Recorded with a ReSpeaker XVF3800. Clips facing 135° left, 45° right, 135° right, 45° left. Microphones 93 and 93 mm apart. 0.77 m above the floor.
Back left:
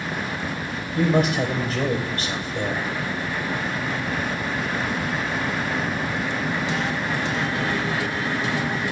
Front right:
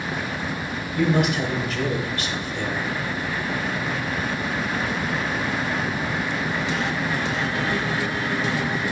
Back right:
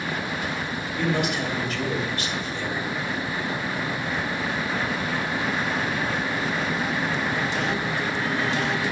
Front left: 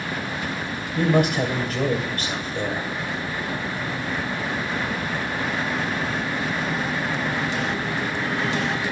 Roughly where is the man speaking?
Left.